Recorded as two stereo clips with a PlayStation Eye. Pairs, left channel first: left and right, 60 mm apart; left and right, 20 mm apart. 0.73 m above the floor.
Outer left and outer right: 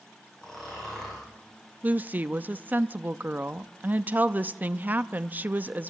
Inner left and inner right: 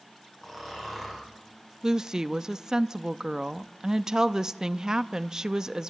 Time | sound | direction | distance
0.4 | snoring | 10° left (ahead or behind) | 8.5 m
1.8 | a woman speaking | 30° right (ahead or behind) | 0.6 m